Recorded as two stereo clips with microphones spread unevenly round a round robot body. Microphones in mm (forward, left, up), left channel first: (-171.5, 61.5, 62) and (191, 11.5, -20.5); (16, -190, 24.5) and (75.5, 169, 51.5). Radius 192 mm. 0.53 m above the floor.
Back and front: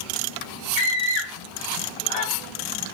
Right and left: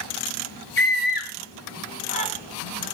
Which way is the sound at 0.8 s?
160° right.